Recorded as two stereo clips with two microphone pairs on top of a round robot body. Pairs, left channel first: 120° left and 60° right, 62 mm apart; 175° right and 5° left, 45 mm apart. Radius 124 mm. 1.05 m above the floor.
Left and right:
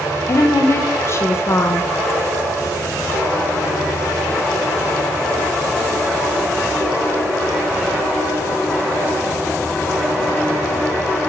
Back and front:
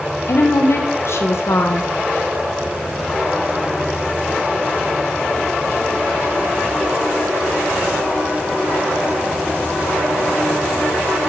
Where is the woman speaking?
160° left, 0.9 m.